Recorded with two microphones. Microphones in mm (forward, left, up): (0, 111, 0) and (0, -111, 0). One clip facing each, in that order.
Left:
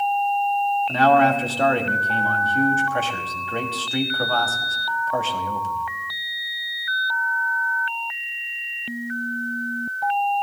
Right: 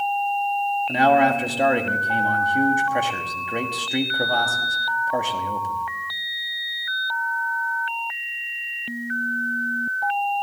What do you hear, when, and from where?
0.9 s a man speaking: 15° right (ahead or behind), 1.4 m